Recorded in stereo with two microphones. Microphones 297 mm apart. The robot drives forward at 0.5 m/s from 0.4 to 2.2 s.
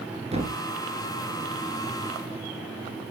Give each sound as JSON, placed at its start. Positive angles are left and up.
{"t": 0.3, "sound": "a thud", "side_deg": -20, "distance_m": 1.8}